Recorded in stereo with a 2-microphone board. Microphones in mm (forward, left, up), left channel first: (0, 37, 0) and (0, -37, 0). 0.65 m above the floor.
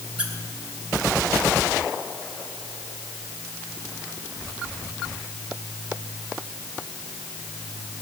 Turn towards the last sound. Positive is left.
turn(degrees=-15)  # may be behind; listen again after turning